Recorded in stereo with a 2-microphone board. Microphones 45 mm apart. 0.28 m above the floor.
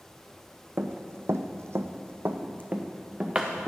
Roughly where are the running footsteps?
Right.